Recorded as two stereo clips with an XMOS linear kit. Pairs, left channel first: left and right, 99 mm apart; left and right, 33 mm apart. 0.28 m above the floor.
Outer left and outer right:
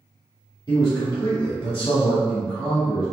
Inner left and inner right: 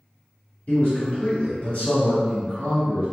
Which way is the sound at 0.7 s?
40° left (ahead or behind).